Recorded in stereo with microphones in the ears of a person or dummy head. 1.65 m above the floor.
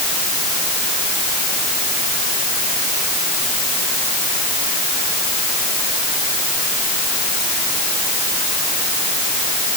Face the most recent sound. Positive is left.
No sound to turn to.